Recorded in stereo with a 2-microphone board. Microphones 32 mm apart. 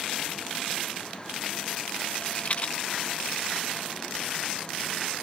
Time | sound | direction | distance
2.1 | a rattle | 45° left (ahead or behind) | ?